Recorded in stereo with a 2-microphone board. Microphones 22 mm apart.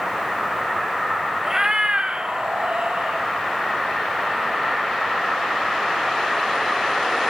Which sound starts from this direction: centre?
A cat meowing, at 1.4 s.